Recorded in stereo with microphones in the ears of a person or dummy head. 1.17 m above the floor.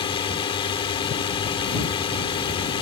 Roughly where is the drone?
Left.